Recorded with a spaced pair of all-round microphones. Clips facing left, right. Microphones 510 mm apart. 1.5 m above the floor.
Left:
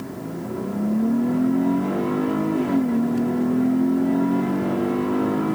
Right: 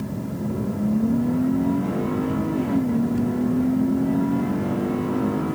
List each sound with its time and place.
0.0 s a fan: 55° right (ahead or behind)